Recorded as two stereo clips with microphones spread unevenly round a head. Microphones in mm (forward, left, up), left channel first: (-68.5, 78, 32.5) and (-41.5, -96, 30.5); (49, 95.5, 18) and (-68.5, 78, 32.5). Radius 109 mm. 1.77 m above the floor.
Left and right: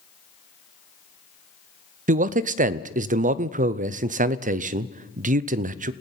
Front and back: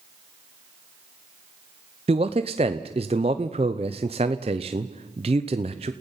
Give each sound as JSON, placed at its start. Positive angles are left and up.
{"t": 2.1, "sound": "a man speaking", "azimuth_deg": -120, "distance_m": 0.6}